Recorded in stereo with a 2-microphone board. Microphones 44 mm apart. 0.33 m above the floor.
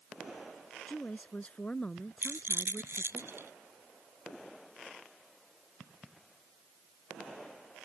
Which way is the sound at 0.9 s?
30° left (ahead or behind).